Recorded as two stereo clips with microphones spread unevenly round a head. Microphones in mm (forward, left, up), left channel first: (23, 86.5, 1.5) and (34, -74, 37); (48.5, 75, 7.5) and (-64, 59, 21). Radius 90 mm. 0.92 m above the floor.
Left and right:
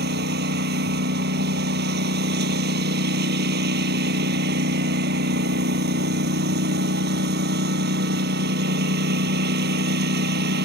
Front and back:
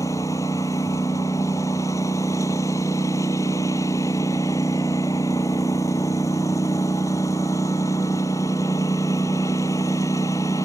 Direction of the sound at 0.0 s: 65° right.